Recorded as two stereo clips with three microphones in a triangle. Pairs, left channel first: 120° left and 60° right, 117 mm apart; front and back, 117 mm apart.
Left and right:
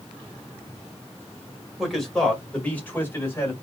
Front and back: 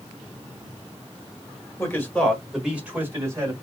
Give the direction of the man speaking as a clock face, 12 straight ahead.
11 o'clock.